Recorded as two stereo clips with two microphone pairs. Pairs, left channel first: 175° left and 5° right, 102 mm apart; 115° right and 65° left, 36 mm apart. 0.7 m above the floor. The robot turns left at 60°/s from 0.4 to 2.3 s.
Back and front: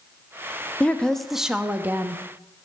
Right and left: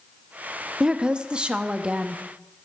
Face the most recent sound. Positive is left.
turn(degrees=20)